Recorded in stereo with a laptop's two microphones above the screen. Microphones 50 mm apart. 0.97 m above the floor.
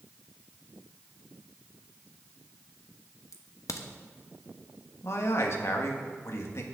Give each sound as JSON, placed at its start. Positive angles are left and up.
{"t": 3.3, "sound": "a crack", "side_deg": 75, "distance_m": 0.8}
{"t": 5.0, "sound": "a man speaking", "side_deg": 55, "distance_m": 1.2}